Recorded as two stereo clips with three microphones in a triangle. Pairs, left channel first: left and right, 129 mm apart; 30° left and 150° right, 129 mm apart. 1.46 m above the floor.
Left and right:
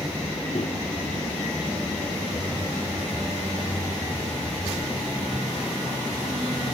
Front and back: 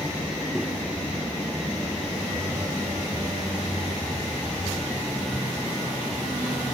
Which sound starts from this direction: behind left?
A microwave, at 0.6 s.